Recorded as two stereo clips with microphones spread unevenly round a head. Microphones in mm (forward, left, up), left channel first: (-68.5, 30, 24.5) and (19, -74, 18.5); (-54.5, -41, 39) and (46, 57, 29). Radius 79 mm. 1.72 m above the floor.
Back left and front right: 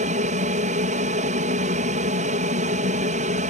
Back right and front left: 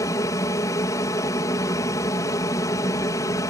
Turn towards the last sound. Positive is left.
turn(degrees=-70)